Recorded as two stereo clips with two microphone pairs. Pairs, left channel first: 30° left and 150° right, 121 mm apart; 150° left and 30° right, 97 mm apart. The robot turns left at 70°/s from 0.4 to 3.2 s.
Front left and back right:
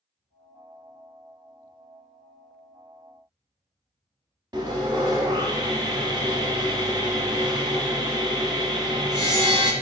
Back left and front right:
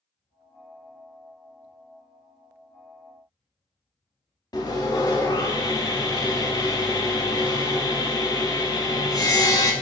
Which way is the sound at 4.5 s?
Straight behind.